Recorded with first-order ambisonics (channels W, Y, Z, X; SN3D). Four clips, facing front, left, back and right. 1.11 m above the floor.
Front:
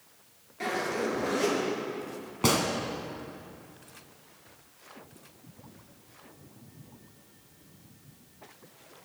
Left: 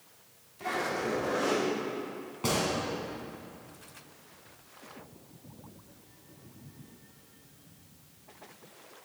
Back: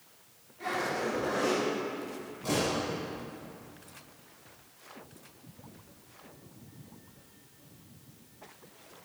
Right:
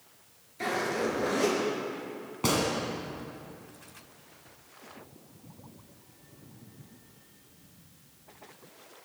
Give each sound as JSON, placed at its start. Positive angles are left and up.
{"t": 0.6, "sound": "a zipper", "azimuth_deg": -50, "distance_m": 6.0}
{"t": 2.4, "sound": "a gunshot", "azimuth_deg": -15, "distance_m": 2.0}